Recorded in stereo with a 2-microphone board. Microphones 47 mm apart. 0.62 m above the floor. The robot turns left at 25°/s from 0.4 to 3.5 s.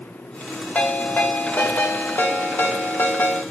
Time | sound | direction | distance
0.8 | a ringtone | 140° left | 0.7 m